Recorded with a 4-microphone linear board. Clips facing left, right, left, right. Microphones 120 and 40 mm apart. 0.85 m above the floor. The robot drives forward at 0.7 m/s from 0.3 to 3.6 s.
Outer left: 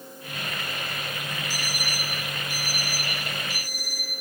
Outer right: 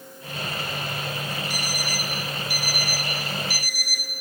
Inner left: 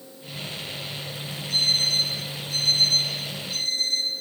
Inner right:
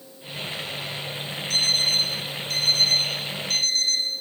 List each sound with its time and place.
1.5 s an alarm clock: 65° right (ahead or behind), 5.5 m; by 4.1 s 80° right, 5 m